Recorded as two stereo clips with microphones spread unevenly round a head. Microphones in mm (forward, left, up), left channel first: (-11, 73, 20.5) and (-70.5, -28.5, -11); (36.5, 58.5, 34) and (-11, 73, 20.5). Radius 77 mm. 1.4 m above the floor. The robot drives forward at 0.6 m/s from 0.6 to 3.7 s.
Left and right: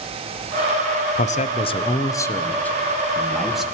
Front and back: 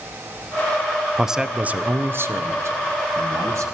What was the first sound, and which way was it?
A man speaking, 80° left.